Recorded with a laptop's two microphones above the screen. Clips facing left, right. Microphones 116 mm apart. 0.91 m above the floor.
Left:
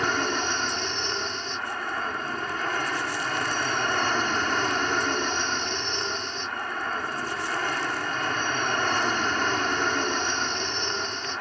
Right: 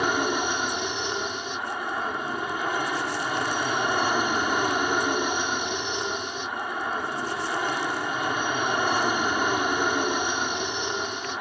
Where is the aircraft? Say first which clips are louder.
Right 2 dB; 10° right (ahead or behind).